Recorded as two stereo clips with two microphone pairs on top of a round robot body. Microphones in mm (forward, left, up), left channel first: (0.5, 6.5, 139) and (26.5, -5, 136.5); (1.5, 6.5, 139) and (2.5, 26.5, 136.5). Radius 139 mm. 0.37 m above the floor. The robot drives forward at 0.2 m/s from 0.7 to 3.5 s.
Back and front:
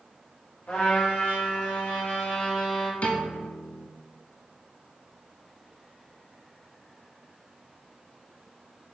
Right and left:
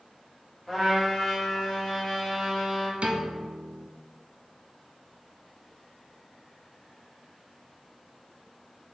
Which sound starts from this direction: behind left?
A piano, at 3.0 s.